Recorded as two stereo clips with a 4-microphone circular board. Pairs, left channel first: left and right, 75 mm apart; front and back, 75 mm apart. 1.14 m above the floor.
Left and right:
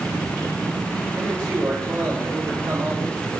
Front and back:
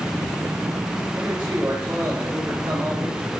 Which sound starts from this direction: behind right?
A man speaking, at 1.1 s.